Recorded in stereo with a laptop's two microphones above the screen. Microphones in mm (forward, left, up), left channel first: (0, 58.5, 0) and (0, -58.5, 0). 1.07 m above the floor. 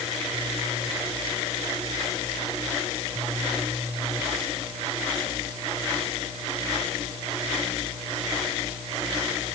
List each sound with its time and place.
Only background noise.